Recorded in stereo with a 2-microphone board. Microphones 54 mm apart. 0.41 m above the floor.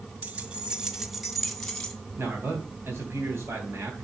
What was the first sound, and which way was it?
Keys jangling, 30° right (ahead or behind).